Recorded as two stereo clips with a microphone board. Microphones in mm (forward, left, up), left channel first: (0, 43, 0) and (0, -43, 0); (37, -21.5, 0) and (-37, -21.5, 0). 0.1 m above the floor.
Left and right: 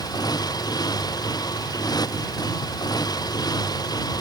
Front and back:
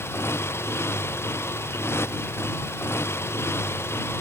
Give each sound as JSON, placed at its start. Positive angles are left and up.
{"t": 0.0, "sound": "a motorcycle", "azimuth_deg": 55}